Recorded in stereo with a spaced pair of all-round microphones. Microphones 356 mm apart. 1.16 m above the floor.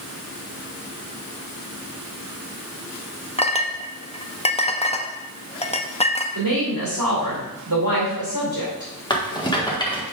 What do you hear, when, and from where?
3.4 s a clink: 20° left (ahead or behind), 0.6 m
6.3 s a woman speaking: 65° right (ahead or behind), 2.5 m
9.1 s a rattle: 10° left (ahead or behind), 1.3 m